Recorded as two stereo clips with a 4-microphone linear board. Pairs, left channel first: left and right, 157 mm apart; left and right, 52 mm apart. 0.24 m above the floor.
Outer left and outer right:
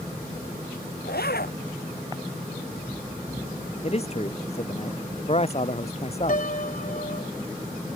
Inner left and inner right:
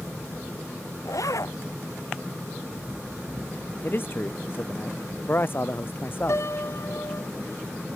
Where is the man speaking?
40° left (ahead or behind).